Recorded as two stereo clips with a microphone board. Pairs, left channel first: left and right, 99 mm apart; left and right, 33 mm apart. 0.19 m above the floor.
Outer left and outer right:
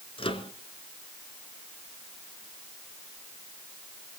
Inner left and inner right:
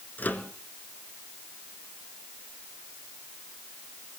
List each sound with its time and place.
0.2 s a microwave: 65° left (ahead or behind), 2.0 m